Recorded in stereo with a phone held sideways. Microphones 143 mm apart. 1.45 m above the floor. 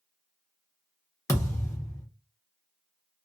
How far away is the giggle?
No giggle in this recording.